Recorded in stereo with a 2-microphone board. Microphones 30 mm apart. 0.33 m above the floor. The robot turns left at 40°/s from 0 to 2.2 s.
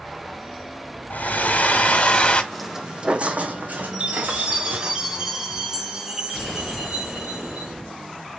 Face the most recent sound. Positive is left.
turn(degrees=-20)  # may be behind; listen again after turning